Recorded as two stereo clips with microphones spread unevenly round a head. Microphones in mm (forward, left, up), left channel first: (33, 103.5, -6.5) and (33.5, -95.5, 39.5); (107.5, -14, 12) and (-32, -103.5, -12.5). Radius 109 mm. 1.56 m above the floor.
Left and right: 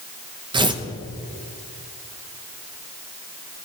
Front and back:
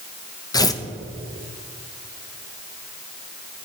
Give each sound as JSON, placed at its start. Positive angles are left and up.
{"t": 0.5, "sound": "tearing paper", "azimuth_deg": -30, "distance_m": 1.1}